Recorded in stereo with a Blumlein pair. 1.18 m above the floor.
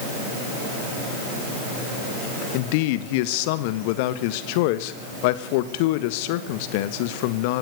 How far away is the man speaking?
About 1.5 m.